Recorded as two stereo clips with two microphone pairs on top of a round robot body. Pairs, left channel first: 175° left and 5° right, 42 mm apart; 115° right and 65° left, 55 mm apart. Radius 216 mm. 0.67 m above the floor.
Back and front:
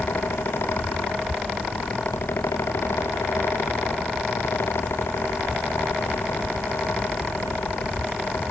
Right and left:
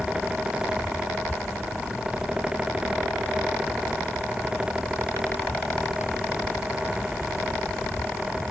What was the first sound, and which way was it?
Only background noise.